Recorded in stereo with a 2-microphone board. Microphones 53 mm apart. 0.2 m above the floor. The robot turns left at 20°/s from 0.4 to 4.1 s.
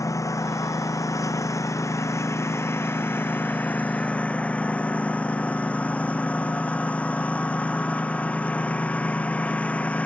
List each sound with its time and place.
0.0 s a lawn mower: 100° left; by 10.1 s 25° left